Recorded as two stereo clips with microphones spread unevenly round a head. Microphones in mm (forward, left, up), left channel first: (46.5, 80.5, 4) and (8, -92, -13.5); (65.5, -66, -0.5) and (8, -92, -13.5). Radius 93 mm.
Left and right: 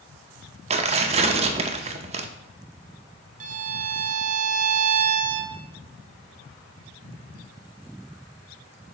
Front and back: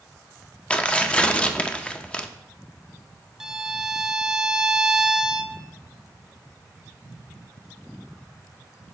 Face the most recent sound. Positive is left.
turn(degrees=-65)